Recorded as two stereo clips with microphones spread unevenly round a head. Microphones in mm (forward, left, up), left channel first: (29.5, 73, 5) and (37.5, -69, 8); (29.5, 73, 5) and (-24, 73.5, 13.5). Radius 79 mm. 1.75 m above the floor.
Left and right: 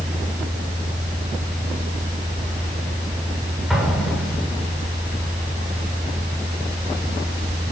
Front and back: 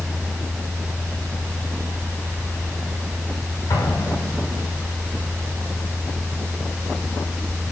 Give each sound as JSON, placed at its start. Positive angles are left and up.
{"t": 0.0, "sound": "a fan", "azimuth_deg": -125, "distance_m": 4.5}
{"t": 3.7, "sound": "an explosion", "azimuth_deg": 0, "distance_m": 7.0}